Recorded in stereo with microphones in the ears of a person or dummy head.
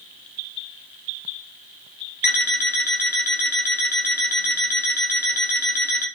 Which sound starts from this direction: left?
An alarm clock, at 2.2 s.